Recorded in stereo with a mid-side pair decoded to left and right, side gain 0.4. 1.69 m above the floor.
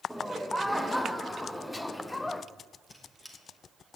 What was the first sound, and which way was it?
Laughter, straight ahead.